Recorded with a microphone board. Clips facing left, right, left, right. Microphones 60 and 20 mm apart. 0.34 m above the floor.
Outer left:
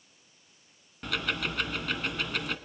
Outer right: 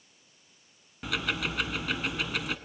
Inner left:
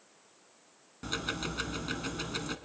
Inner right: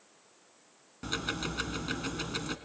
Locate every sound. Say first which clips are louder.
1.0 s ticking: even, inner right 1 dB; 5° right (ahead or behind), 0.7 m